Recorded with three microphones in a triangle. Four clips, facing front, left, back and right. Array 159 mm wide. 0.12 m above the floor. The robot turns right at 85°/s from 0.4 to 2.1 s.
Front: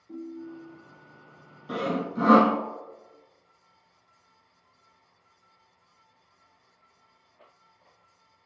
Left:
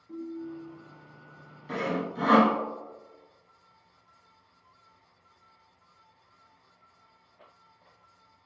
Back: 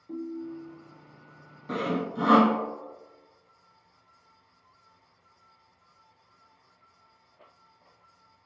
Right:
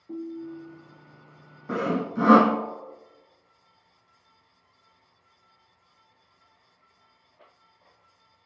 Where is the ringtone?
130° right, 1.9 m; by 0.8 s 95° right, 1.9 m.